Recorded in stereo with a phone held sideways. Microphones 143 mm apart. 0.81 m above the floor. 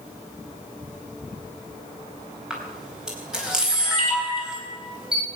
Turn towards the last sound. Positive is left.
turn(degrees=-5)  # may be behind; listen again after turning